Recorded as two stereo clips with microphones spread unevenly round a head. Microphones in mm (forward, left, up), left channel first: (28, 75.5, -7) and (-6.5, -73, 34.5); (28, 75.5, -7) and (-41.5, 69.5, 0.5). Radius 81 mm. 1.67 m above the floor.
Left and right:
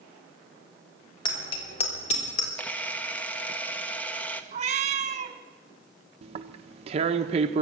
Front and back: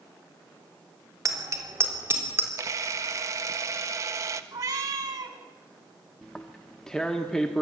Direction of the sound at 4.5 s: 135° right.